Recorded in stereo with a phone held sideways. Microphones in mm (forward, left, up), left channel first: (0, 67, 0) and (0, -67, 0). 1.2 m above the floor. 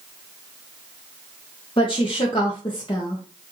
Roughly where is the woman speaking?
Left.